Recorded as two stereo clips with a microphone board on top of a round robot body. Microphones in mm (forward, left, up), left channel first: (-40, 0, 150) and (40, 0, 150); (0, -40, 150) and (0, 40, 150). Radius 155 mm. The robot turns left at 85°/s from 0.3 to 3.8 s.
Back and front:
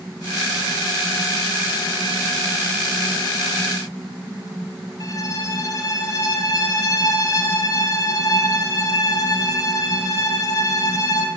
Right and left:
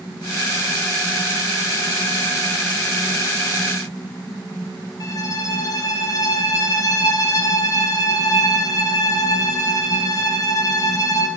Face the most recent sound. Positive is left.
turn(degrees=-135)